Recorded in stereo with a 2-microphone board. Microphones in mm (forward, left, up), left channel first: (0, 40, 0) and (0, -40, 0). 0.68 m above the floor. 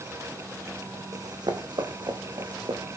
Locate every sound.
1.1 s running footsteps: 55° right (ahead or behind), 2 m; by 3.0 s 65° right (ahead or behind), 2.5 m